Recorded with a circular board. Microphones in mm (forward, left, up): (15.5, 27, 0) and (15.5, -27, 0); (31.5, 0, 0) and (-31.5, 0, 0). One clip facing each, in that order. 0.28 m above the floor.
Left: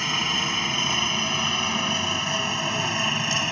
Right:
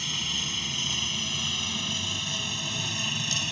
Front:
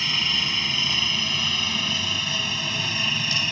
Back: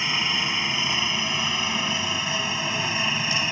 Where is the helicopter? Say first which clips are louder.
Left 8 dB, back 1 dB; 115° left; by 3.5 s 120° left.